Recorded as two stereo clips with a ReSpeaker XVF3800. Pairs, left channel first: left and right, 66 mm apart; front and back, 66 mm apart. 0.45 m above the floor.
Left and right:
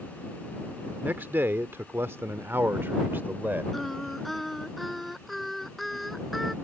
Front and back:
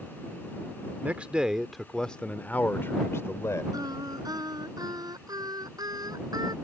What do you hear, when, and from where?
1.0 s a man speaking: 130° right; by 3.6 s 35° right
3.7 s singing: straight behind